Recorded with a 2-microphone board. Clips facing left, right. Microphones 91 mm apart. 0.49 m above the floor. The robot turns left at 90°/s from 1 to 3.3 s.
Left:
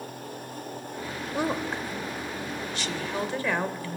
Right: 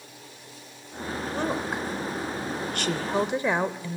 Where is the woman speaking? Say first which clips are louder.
Left 1 dB; 15° left (ahead or behind), 1.5 m; by 4.0 s 20° right (ahead or behind), 1.5 m.